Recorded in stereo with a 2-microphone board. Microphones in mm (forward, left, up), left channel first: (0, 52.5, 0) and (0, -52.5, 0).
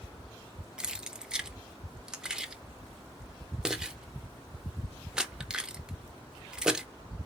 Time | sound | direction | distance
0.8 | keys jangling | 5° right (ahead or behind) | 0.5 m